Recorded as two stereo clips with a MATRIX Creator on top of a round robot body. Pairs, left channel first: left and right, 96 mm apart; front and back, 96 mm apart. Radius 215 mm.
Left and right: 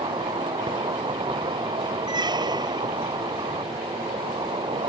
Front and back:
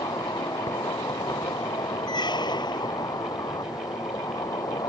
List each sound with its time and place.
0.0 s an insect: 55° right
2.1 s a squeak: 45° right